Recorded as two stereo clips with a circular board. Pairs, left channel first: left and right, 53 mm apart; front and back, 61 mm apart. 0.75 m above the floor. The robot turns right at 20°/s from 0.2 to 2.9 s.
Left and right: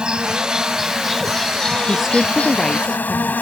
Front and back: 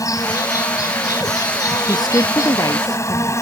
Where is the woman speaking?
5° right; by 3.3 s 15° left.